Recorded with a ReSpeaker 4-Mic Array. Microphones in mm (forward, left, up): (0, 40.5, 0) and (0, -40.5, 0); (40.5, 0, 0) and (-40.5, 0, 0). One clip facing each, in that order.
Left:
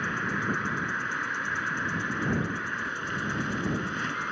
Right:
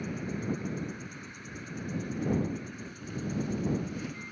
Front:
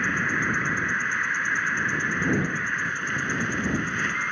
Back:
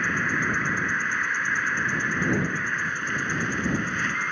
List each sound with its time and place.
0.0 s an insect: 90° left